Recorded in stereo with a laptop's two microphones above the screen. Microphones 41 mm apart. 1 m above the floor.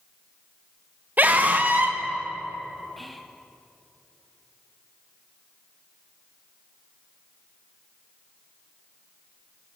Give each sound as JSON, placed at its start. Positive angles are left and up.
{"t": 1.2, "sound": "a scream", "side_deg": -45, "distance_m": 0.9}
{"t": 3.0, "sound": "whispering", "side_deg": 0, "distance_m": 0.6}